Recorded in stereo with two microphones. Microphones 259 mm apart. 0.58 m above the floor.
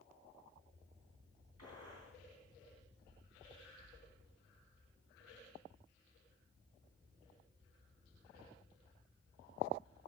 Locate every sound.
1.6 s a gunshot: 65° right (ahead or behind), 5 m